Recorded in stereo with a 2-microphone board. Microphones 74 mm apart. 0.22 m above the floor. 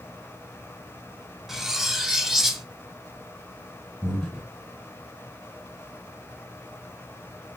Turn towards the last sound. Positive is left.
turn(degrees=5)  # may be behind; listen again after turning